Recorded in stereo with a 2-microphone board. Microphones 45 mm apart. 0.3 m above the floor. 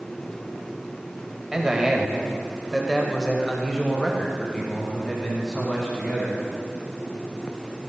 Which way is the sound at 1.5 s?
15° right (ahead or behind).